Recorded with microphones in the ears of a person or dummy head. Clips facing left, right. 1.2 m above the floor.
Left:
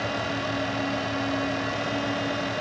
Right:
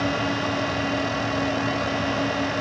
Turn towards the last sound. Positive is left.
No sound to turn to.